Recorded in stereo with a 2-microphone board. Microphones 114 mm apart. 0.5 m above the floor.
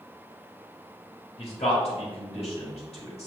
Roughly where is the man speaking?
Left.